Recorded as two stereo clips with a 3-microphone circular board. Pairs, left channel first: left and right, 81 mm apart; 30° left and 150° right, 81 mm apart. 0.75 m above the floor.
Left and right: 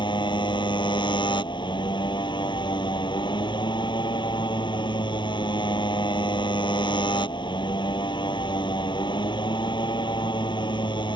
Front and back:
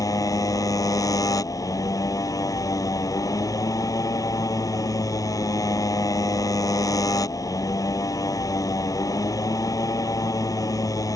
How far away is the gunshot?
I don't hear a gunshot.